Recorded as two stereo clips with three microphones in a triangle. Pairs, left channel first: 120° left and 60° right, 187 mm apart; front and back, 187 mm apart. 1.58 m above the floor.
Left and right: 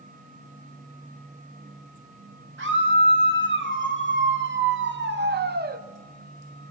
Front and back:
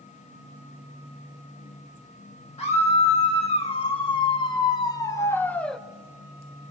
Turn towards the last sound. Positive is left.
turn(degrees=-90)